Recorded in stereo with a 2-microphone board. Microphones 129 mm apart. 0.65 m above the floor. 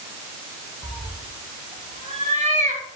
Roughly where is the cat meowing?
Right.